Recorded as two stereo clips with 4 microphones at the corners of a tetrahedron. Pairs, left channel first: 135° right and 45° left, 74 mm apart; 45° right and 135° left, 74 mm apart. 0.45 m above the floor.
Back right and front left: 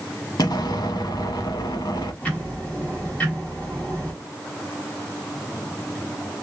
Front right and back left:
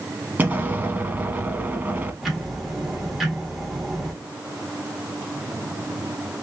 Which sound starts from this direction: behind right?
Ticking, at 2.2 s.